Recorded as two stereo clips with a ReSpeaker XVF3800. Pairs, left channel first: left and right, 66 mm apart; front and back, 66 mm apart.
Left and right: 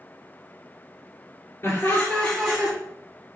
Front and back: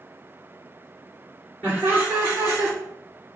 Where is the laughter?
125° left, 2.0 m; by 2.8 s 140° right, 1.4 m.